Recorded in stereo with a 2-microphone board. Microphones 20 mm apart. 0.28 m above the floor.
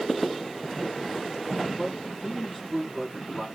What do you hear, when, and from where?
1.7 s a man speaking: 10° left (ahead or behind), 6.5 m